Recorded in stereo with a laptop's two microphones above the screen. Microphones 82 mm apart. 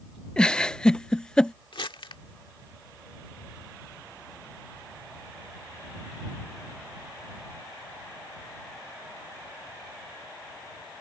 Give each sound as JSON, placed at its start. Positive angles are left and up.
{"t": 0.4, "sound": "a giggle", "side_deg": 10}
{"t": 1.7, "sound": "crumpling", "side_deg": 80}